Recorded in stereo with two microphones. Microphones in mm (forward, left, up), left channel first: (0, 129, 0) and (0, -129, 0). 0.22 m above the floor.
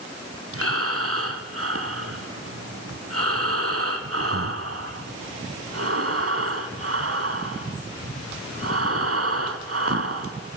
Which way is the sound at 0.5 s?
55° right (ahead or behind).